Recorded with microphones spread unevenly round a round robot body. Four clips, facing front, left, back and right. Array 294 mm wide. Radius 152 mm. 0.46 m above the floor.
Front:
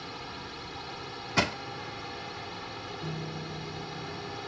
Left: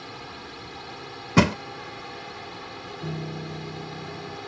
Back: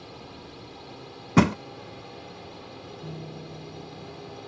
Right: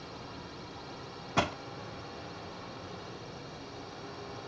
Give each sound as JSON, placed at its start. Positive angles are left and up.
{"t": 0.0, "sound": "a drone", "azimuth_deg": 100}
{"t": 1.4, "sound": "crushing", "azimuth_deg": 125}
{"t": 3.0, "sound": "a piano", "azimuth_deg": 90}